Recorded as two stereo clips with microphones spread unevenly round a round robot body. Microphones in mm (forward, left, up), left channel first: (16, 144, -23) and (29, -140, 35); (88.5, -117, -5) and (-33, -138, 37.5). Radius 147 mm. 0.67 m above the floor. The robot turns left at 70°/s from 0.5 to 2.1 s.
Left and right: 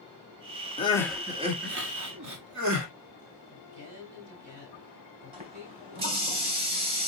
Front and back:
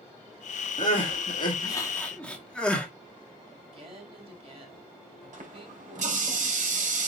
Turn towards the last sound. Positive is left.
turn(degrees=-150)